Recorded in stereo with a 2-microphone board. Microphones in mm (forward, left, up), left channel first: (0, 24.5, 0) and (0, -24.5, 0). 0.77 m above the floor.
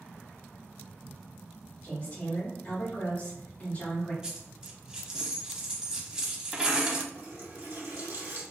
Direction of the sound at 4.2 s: 20° right (ahead or behind).